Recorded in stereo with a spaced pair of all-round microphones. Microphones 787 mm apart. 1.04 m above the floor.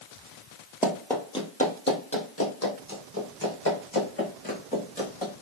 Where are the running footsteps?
5° right (ahead or behind), 1.2 m; by 5.3 s 25° left (ahead or behind), 4.5 m.